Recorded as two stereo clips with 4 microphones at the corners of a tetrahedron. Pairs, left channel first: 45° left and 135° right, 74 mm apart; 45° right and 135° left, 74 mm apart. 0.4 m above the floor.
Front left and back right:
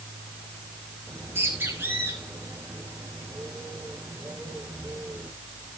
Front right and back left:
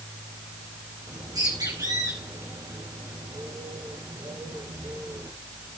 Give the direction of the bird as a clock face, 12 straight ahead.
7 o'clock.